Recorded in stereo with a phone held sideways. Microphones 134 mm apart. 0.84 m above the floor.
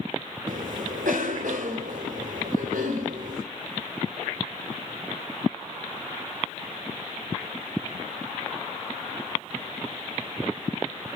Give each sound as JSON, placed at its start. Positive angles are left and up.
{"t": 0.5, "sound": "a cough", "side_deg": -80, "distance_m": 2.5}